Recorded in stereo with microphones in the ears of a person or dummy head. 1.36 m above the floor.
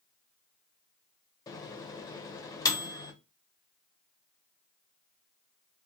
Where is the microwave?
25° left (ahead or behind), 0.6 m.